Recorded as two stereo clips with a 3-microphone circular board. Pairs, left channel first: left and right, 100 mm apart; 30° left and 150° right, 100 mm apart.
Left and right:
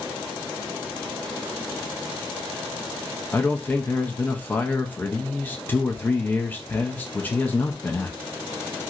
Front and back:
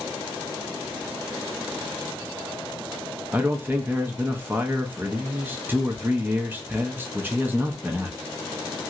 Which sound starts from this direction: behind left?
A man speaking, at 3.3 s.